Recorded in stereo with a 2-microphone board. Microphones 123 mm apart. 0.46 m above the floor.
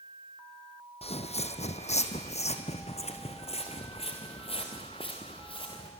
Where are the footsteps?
60° left (ahead or behind), 1.2 m; by 5.9 s 50° left (ahead or behind), 3.5 m.